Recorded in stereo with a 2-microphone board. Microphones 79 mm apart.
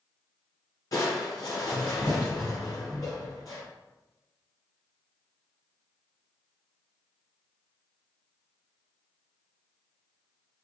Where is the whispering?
I don't hear whispering.